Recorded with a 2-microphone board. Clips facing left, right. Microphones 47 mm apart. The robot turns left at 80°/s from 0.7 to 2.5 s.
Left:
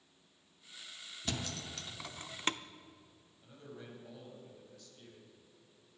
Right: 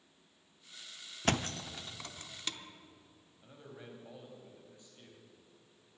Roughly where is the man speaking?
Right.